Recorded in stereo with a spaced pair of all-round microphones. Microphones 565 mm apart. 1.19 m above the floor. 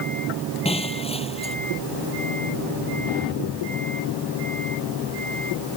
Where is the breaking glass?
10° left (ahead or behind).